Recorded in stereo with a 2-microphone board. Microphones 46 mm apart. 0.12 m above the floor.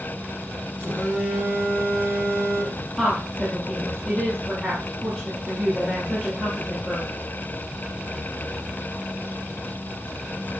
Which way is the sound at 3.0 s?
Centre (ahead or behind).